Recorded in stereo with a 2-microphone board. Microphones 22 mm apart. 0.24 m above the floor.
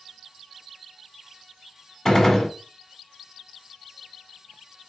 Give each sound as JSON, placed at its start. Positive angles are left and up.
{"t": 2.0, "sound": "a gunshot", "side_deg": 20, "distance_m": 1.1}